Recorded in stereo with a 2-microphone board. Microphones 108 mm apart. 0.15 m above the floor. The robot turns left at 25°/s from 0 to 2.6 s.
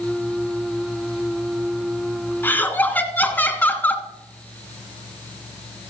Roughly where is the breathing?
No breathing in this recording.